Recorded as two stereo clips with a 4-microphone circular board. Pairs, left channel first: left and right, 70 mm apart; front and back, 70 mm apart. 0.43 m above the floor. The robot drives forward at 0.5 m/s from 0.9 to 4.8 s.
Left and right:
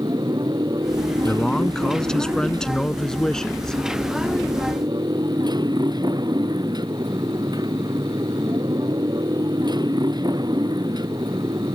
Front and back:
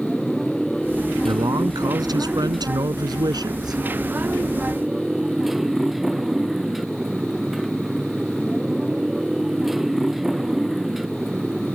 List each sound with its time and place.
0.0 s a motorcycle: 85° right; by 11.8 s 95° right
1.2 s a man speaking: 170° left; by 3.8 s 175° left